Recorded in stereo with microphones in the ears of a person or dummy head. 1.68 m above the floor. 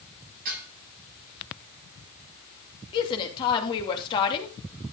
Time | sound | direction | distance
0.5 | dishes clattering | 50° right (ahead or behind) | 9 m
2.9 | a woman speaking | 25° left (ahead or behind) | 2.5 m